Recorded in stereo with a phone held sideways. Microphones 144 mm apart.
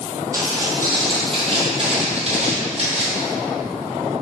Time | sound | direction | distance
0.3 | footsteps | 25° right (ahead or behind) | 1.3 m